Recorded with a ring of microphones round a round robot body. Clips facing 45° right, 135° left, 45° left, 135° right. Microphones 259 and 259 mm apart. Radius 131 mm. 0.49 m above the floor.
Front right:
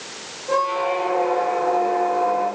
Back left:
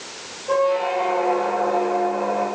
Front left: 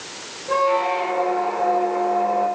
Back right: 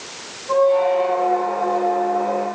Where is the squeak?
35° left, 3.5 m.